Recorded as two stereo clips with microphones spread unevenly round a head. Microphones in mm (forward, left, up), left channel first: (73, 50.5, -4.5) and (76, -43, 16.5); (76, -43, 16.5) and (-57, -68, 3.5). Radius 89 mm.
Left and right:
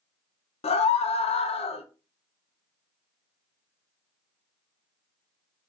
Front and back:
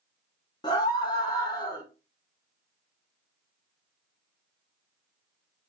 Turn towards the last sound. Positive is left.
turn(degrees=80)